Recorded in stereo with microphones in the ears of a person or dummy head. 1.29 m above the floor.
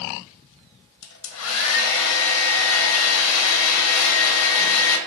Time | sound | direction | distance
1.0 | a hair dryer | 70° left (ahead or behind) | 0.6 m